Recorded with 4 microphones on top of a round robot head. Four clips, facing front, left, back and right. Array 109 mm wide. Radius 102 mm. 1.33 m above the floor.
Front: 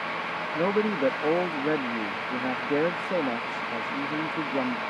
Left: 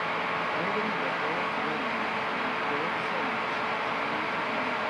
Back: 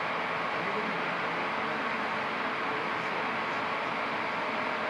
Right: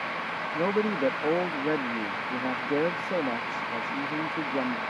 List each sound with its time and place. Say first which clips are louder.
0.5 s a man speaking: right 3 dB, front 7 dB; 35° right